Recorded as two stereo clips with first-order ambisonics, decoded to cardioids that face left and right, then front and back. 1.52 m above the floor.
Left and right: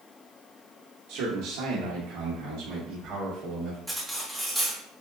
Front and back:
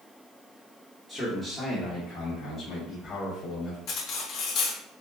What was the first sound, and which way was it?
A man speaking, 80° right.